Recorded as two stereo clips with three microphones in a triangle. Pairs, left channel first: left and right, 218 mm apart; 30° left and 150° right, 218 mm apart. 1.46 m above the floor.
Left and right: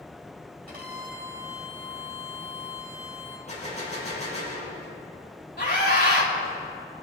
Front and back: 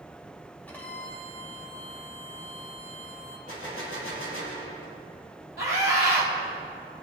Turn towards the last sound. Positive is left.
turn(degrees=50)